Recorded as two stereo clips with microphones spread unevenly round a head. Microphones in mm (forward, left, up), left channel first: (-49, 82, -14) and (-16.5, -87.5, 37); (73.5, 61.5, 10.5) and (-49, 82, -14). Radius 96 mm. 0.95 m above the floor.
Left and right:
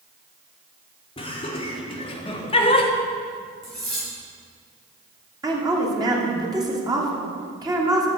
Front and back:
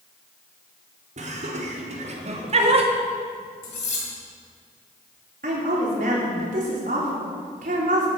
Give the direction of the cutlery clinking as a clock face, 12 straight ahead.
12 o'clock.